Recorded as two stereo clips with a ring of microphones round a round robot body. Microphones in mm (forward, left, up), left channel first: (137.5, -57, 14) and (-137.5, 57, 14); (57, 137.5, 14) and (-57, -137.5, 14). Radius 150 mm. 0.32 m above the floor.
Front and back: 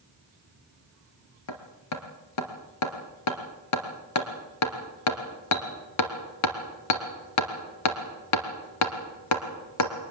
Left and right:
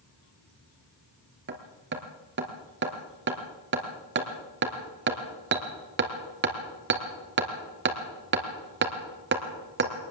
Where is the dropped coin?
No dropped coin in this recording.